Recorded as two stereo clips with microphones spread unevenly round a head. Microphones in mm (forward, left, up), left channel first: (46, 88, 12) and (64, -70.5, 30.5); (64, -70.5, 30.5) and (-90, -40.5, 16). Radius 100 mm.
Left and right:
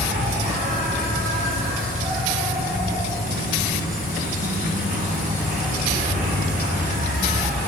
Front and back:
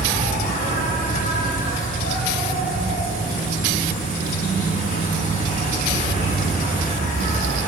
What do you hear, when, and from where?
0.0 s an insect: 45° right, 2 m